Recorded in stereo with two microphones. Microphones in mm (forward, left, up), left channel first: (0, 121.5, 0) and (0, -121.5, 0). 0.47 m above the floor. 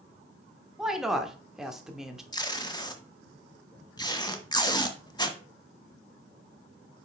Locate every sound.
0.8 s a woman speaking: centre (ahead or behind), 0.9 m
2.3 s tape being pulled: 20° left (ahead or behind), 1.0 m